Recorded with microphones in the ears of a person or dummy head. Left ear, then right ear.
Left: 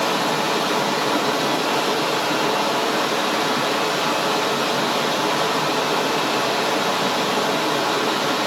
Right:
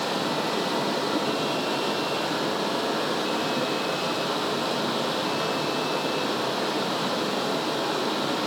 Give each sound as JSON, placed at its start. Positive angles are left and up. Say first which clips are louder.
{"t": 0.0, "sound": "running water", "louder": "left 6 dB", "side_deg": 25, "distance_m": 1.0}